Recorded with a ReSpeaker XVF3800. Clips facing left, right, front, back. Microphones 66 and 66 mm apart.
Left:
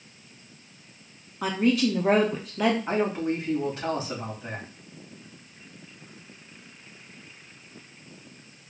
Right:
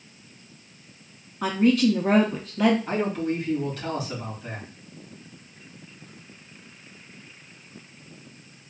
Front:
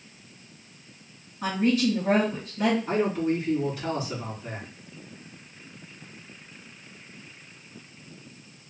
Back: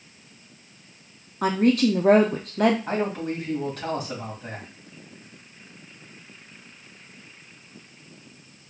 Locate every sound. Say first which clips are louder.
1.4 s a woman speaking: right 3 dB, back 4 dB; 175° left, 0.6 m
2.9 s a man speaking: even, front 2 dB; 150° left, 2 m